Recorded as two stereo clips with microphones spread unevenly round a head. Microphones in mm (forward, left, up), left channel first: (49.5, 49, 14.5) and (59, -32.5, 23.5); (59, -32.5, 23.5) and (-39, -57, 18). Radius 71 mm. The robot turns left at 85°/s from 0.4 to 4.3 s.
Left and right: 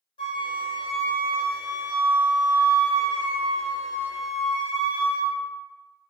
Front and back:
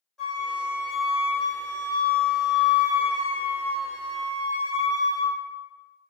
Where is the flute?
100° left, 0.7 m; by 5.3 s 125° left, 0.7 m.